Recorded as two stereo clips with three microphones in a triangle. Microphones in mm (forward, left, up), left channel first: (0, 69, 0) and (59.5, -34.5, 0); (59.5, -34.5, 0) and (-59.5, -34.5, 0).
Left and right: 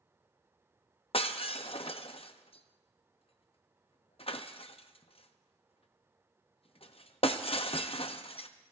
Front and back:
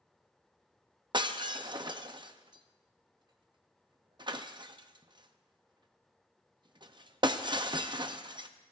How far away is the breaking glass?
About 0.7 m.